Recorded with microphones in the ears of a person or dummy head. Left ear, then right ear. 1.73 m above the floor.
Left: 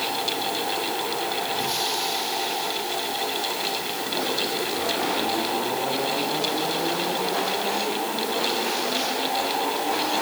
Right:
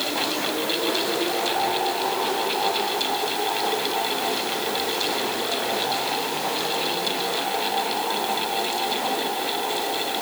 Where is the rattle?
I don't hear a rattle.